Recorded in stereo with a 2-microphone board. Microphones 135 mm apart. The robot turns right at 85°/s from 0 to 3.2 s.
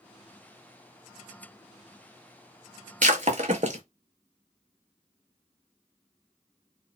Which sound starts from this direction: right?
Breaking glass, at 3.0 s.